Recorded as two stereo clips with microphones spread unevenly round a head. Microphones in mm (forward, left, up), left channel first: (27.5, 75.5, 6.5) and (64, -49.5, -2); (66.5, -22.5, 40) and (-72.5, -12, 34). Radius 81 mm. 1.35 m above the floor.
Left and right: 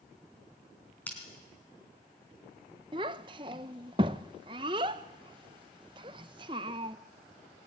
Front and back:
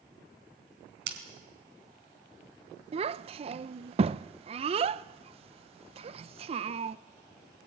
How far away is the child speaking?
About 0.6 m.